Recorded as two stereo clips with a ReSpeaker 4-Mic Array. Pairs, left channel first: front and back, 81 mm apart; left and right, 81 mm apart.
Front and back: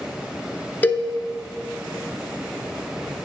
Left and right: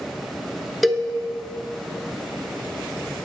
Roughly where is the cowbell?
Ahead.